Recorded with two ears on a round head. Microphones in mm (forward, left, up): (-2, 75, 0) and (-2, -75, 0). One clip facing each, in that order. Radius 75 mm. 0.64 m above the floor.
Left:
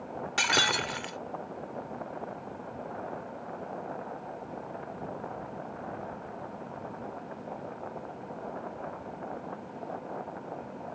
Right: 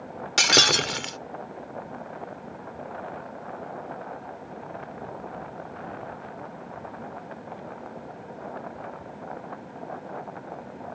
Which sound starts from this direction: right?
Breaking glass, at 0.4 s.